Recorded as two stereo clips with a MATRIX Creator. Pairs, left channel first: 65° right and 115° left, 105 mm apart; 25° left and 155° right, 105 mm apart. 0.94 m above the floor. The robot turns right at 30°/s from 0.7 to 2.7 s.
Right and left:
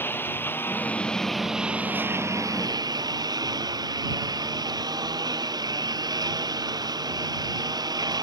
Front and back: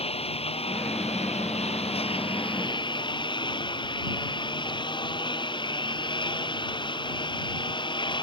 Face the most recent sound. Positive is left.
turn(degrees=65)